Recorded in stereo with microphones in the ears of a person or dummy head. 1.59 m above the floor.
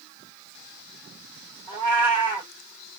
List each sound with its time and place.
1.7 s a cat meowing: 20° right (ahead or behind), 1.4 m